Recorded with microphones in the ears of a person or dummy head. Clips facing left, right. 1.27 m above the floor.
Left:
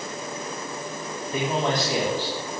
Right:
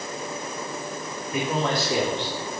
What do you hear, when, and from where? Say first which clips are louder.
1.3 s a man speaking: left 1 dB; 30° left (ahead or behind), 3 m; by 2.3 s centre (ahead or behind), 3.5 m